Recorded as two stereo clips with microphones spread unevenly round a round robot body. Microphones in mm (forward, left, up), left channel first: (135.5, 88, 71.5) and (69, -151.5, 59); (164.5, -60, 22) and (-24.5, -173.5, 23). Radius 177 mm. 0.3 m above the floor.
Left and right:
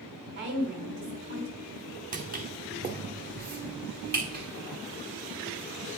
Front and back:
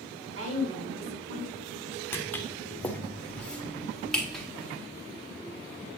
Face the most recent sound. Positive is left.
turn(degrees=-55)